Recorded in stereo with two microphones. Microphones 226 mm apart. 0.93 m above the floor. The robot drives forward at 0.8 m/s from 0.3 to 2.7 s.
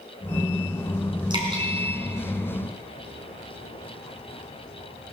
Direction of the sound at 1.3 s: 20° right (ahead or behind).